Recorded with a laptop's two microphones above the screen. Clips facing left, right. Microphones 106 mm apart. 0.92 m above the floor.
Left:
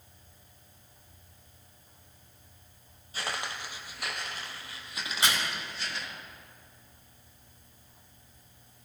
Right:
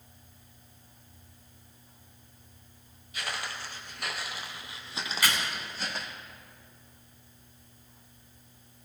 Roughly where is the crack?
Left.